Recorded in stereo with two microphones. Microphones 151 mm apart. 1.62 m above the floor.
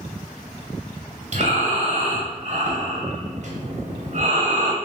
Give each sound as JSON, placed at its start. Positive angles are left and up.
{"t": 1.3, "sound": "breathing", "side_deg": -50, "distance_m": 0.7}